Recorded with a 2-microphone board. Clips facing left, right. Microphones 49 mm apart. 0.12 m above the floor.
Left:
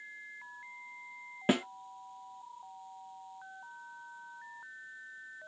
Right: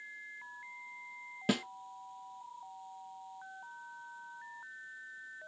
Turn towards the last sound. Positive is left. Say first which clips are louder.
# left 4 dB
turn(degrees=25)  # may be behind; listen again after turning